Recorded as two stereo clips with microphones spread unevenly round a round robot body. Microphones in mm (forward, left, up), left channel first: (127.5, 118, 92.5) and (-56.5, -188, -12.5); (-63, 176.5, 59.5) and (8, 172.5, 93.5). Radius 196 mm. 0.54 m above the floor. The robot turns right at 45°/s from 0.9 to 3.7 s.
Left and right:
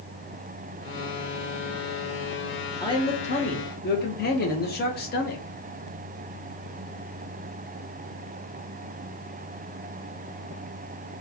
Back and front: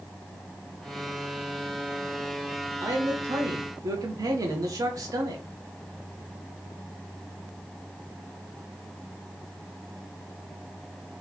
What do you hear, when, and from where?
2.8 s a man speaking: 45° right, 0.9 m; by 5.4 s 5° right, 0.9 m